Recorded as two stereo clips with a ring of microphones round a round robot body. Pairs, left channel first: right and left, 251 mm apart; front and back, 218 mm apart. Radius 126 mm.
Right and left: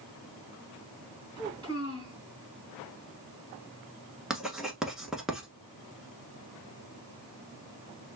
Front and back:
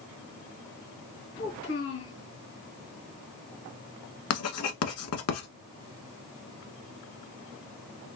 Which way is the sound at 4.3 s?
Straight ahead.